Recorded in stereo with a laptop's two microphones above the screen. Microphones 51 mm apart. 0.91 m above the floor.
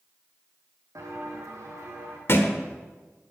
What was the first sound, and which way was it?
Footsteps, 75° right (ahead or behind).